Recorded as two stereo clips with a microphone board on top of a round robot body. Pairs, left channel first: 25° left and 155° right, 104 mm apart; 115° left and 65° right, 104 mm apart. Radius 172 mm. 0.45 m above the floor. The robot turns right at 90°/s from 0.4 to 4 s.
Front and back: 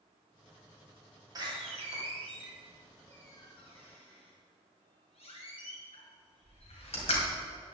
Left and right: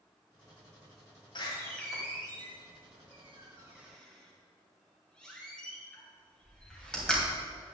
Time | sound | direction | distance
1.4 | a door slam | 155° left | 2.5 m